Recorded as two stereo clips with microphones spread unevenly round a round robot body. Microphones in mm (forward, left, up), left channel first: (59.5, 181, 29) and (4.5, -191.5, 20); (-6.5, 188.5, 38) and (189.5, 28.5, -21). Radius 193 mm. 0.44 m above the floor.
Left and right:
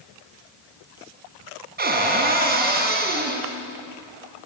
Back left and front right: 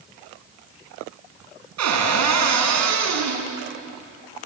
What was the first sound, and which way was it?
A cupboard door, 35° right.